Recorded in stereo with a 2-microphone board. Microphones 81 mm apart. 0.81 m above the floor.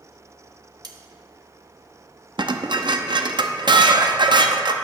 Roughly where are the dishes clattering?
Right.